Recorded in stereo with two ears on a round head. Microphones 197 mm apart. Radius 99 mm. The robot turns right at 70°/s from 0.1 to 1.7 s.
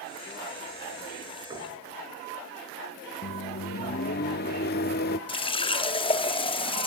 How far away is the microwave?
About 0.5 m.